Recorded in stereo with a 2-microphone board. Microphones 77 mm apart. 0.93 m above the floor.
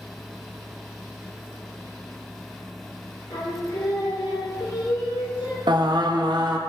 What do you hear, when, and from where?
3.3 s singing: 75° left (ahead or behind), 1.9 m
5.7 s singing: 70° right (ahead or behind), 0.8 m